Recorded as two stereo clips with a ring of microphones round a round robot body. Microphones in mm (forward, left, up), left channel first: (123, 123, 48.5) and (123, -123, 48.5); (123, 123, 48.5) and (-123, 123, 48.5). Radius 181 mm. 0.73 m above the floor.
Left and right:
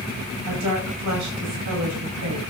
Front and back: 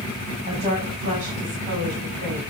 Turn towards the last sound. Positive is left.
turn(degrees=-120)